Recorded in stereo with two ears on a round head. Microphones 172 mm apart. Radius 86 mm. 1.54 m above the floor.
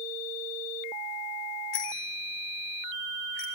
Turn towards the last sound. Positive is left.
turn(degrees=65)  # may be behind; listen again after turning